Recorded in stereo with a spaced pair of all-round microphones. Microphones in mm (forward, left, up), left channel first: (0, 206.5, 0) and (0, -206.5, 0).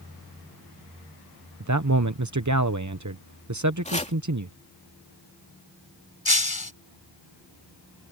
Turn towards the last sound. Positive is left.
turn(degrees=60)  # may be behind; listen again after turning